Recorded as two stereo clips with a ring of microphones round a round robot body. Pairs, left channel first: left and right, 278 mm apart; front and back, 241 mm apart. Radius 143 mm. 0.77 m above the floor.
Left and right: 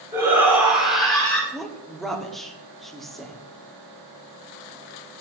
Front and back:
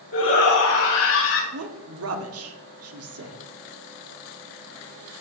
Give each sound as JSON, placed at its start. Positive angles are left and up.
{"t": 0.1, "sound": "a shout", "azimuth_deg": -10, "distance_m": 6.0}
{"t": 1.5, "sound": "a woman speaking", "azimuth_deg": 180, "distance_m": 1.7}